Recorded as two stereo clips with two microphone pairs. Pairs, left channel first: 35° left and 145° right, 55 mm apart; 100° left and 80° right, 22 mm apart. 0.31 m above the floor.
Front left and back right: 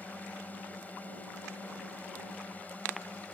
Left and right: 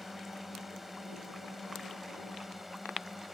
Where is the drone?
Straight ahead.